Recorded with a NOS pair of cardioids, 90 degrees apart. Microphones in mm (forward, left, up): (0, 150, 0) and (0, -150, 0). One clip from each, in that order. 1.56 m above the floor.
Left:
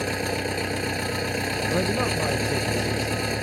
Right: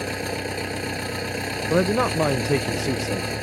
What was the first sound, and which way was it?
An engine running, 10° left.